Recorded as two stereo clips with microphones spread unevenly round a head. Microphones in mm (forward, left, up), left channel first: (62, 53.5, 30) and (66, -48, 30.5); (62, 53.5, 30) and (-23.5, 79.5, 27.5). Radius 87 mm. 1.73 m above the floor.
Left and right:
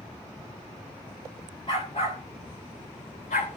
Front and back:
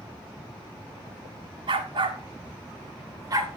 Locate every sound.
1.7 s a dog barking: 155° left, 2.0 m; by 3.6 s 115° left, 3 m